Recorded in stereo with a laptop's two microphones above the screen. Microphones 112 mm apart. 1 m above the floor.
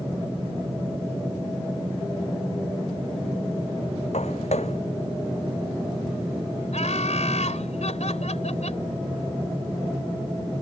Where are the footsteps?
80° left.